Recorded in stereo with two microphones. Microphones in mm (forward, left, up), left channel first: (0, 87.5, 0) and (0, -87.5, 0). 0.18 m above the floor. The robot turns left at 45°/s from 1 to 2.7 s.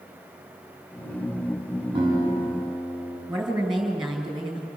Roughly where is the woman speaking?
Centre.